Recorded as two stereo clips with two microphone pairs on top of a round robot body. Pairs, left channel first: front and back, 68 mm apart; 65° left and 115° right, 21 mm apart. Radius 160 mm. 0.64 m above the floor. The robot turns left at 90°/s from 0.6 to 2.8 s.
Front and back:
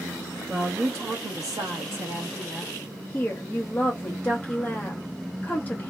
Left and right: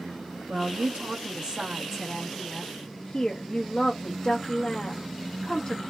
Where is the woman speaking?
100° right, 0.8 m; by 5.9 s 60° left, 0.8 m.